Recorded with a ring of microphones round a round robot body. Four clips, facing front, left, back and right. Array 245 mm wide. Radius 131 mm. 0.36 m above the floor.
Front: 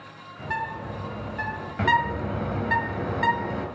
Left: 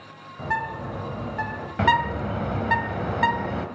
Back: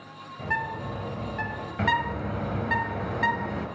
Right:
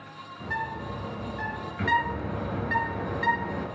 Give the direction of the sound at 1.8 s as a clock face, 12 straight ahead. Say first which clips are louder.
Left 5 dB, front 4 dB; 9 o'clock.